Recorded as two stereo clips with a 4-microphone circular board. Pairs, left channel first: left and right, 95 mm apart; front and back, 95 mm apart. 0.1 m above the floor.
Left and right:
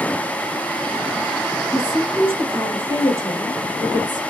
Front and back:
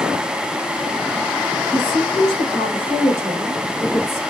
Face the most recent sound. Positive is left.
turn(degrees=-115)